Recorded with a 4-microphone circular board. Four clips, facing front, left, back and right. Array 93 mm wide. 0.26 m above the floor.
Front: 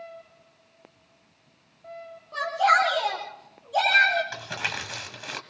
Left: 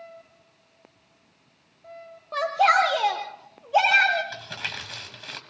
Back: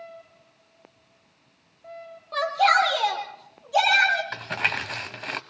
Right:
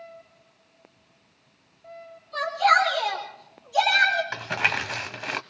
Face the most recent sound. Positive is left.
turn(degrees=-115)